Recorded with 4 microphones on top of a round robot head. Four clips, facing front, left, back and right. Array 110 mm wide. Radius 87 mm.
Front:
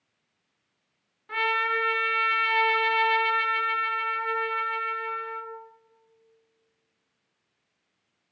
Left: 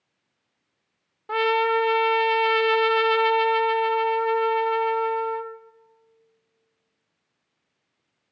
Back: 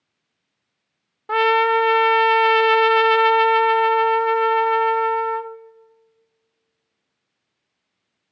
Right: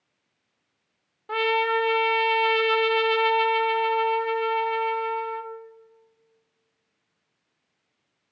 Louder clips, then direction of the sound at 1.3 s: Left 2 dB, back 11 dB; 170° left.